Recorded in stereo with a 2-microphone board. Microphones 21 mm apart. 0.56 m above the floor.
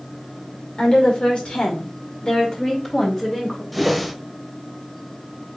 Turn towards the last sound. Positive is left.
turn(degrees=0)  # may be behind; listen again after turning